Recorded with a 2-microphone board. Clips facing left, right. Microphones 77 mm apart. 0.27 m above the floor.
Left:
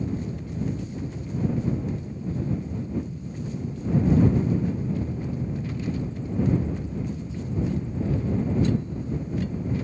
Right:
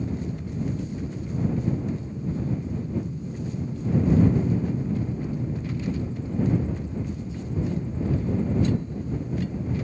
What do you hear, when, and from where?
0.0 s an aircraft: 55° right (ahead or behind); by 9.8 s 15° left (ahead or behind)